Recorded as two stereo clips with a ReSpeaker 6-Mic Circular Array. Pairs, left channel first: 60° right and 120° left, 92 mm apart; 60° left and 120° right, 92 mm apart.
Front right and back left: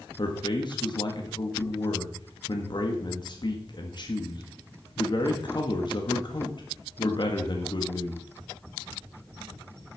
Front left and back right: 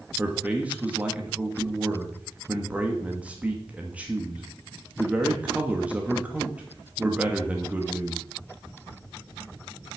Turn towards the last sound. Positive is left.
turn(degrees=-50)